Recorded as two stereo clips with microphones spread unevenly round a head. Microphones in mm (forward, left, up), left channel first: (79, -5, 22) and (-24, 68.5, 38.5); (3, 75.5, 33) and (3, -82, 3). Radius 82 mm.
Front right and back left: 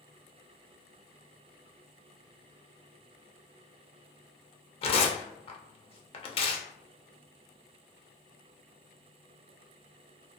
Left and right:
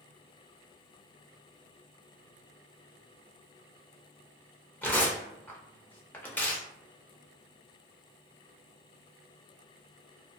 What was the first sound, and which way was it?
Tearing paper, 10° left.